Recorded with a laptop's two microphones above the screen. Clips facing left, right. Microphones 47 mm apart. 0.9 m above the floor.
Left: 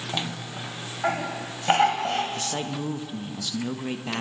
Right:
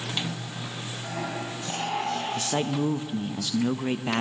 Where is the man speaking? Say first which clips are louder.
Right 3 dB; 15° right (ahead or behind), 0.7 m.